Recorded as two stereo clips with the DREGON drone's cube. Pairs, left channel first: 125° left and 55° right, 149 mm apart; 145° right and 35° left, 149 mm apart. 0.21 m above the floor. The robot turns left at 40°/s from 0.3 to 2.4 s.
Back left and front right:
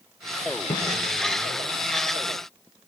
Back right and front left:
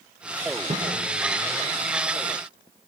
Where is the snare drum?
65° left, 8 m; by 0.9 s 55° left, 8 m.